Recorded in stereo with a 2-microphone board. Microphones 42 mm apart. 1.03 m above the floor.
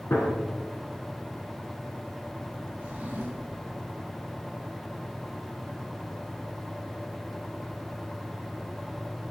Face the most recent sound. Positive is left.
turn(degrees=-35)  # may be behind; listen again after turning